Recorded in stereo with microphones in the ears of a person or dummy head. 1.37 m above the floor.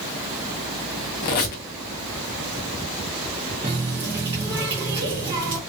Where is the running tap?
15° right (ahead or behind), 0.5 m.